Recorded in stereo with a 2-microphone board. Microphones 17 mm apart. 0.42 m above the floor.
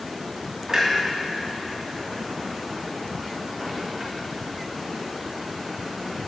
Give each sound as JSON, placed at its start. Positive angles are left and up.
{"t": 0.7, "sound": "a clunk", "side_deg": -40, "distance_m": 1.7}